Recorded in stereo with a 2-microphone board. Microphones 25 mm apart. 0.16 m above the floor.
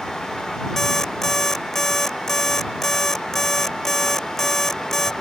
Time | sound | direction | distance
0.8 | an alarm clock | 15° left (ahead or behind) | ?